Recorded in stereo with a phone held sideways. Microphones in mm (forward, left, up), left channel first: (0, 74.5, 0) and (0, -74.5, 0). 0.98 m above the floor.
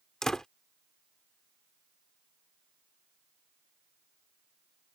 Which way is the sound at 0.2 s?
5° left (ahead or behind).